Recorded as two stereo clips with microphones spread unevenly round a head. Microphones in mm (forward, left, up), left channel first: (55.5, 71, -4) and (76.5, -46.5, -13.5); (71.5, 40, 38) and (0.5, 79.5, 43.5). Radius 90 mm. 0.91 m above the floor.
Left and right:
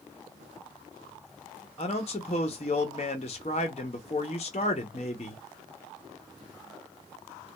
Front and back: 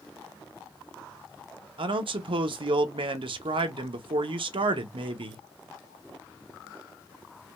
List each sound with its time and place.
1.8 s a man speaking: 155° left, 0.8 m